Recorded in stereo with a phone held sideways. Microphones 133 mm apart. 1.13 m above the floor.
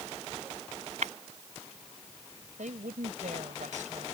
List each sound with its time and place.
1.0 s breaking glass: 75° right (ahead or behind)
2.6 s a woman speaking: 80° right